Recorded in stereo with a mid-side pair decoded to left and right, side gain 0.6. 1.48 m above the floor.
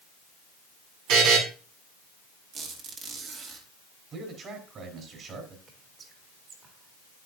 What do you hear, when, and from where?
1.1 s a buzzer: 70° right, 6 m
2.5 s a squeak: 50° right, 2.5 m
4.1 s a man speaking: 45° right, 4 m
5.7 s whispering: 45° right, 3 m